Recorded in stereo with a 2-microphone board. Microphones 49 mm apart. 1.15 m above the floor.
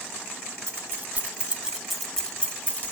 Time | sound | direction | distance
0.7 | keys jangling | 45° right (ahead or behind) | 1.4 m